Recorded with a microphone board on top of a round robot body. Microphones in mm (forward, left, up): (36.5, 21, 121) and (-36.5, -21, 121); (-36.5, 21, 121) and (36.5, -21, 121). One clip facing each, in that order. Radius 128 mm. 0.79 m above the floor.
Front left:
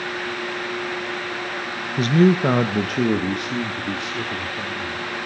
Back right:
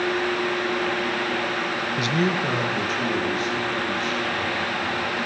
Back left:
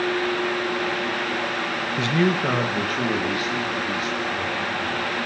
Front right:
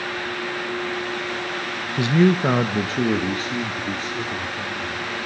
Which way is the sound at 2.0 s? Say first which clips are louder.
Front left 9 dB, front right 4 dB; 35° left.